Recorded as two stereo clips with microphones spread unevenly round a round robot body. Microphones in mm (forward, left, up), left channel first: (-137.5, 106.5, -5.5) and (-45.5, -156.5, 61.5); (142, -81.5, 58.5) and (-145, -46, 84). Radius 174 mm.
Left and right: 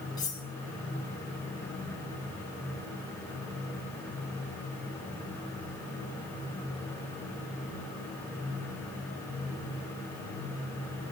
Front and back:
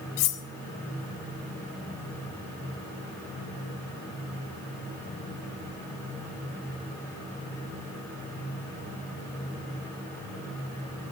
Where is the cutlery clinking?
25° left, 0.8 m.